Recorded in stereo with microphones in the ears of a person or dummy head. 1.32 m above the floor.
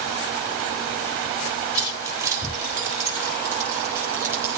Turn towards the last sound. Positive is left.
turn(degrees=-15)  # may be behind; listen again after turning